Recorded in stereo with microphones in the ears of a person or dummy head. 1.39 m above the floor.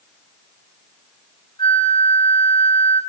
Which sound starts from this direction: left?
A flute, at 1.6 s.